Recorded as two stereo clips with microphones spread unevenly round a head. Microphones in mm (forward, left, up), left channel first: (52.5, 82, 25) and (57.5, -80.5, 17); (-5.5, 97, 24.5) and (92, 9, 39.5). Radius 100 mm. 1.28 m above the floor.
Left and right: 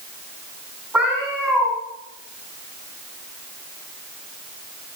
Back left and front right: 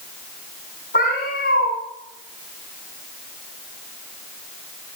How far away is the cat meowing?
About 5 m.